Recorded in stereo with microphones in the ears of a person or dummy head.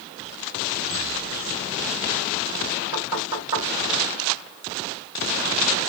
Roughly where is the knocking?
Centre.